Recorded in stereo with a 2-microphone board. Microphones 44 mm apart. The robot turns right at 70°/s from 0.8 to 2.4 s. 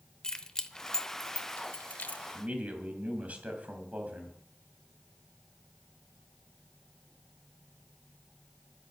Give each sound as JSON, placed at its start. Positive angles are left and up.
{"t": 0.2, "sound": "keys jangling", "side_deg": 15, "distance_m": 0.8}
{"t": 2.3, "sound": "a man speaking", "side_deg": -30, "distance_m": 2.5}